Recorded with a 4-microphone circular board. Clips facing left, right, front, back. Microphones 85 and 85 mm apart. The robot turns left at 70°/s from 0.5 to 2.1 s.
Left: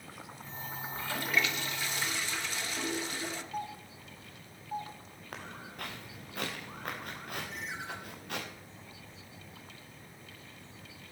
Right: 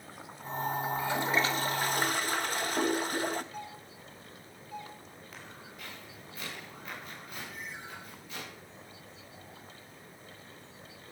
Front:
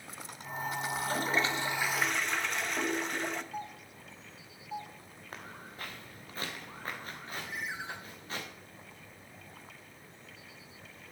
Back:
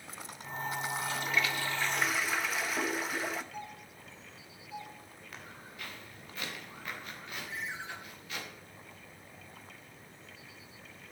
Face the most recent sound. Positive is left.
turn(degrees=75)